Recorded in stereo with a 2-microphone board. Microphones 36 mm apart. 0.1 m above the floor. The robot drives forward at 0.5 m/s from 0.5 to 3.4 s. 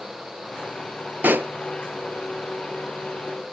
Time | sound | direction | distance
1.2 | a pop | 55° right (ahead or behind) | 0.5 m